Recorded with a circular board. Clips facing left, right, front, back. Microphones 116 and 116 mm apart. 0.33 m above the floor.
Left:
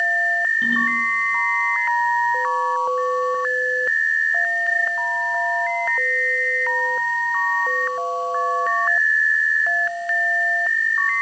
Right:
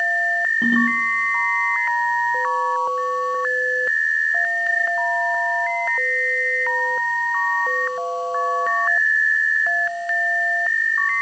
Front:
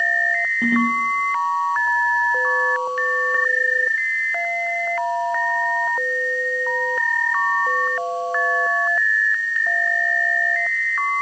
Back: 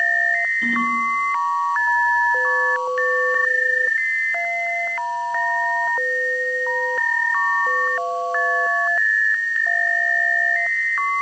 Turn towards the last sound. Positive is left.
turn(degrees=-40)